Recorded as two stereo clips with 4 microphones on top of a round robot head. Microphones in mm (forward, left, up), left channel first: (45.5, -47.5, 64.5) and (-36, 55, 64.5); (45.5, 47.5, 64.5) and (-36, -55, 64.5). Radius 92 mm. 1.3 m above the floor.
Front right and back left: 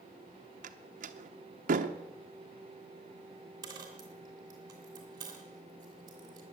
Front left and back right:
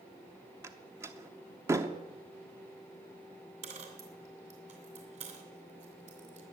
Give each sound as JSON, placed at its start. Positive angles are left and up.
{"t": 0.6, "sound": "a door slam", "azimuth_deg": 160, "distance_m": 0.8}
{"t": 3.6, "sound": "a dropped coin", "azimuth_deg": -170, "distance_m": 2.5}